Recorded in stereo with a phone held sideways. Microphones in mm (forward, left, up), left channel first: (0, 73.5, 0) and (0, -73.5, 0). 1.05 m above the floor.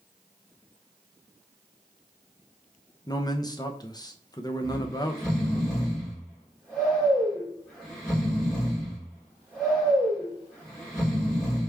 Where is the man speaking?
25° left (ahead or behind), 0.5 m.